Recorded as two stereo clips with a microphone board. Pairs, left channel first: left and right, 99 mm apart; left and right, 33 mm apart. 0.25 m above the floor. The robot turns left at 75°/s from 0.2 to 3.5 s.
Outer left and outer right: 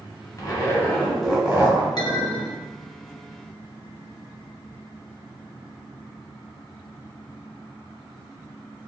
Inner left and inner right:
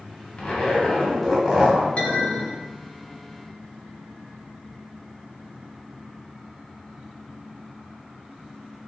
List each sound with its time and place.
0.4 s a zipper: 65° left, 0.9 m; by 1.9 s 45° right, 0.9 m
2.0 s a clink: 55° left, 0.9 m; by 2.6 s 5° left, 0.9 m